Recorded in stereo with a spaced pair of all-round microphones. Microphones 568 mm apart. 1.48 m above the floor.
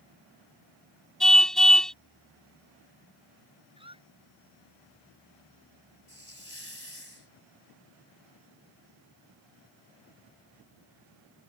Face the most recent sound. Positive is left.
turn(degrees=25)  # may be behind; listen again after turning